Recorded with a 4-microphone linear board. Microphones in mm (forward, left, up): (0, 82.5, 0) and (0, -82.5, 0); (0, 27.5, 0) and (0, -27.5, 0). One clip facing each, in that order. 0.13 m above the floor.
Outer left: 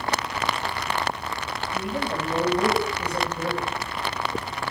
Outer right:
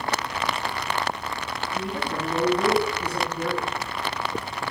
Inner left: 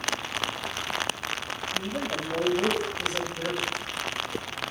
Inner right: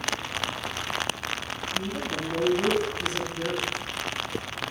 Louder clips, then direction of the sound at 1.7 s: Outer left 2 dB, even; 70° left (ahead or behind).